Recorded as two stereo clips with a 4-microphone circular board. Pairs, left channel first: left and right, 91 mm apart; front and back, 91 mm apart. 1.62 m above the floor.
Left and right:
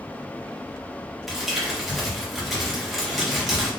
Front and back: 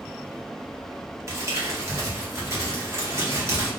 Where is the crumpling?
Straight behind, 1.2 m.